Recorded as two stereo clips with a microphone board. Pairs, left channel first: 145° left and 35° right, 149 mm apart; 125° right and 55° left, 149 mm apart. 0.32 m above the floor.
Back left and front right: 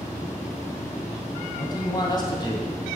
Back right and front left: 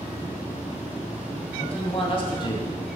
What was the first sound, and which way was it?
A man speaking, 160° right.